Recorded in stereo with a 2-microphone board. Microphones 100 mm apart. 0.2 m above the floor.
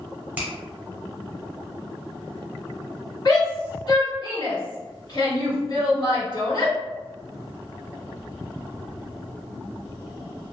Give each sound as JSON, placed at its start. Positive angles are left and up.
{"t": 0.4, "sound": "a finger snap", "side_deg": -20, "distance_m": 1.2}
{"t": 3.2, "sound": "a shout", "side_deg": 50, "distance_m": 1.9}